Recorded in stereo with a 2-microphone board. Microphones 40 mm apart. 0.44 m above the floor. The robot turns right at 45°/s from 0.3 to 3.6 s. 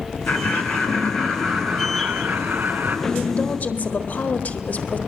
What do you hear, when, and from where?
0.3 s laughter: 125° left, 2.5 m; by 3.0 s 115° right, 2.5 m
3.1 s a woman speaking: 20° left (ahead or behind), 1.7 m; by 5.0 s 40° left (ahead or behind), 1.7 m